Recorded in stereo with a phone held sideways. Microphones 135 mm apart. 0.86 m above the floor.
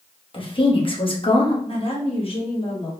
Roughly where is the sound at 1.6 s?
Left.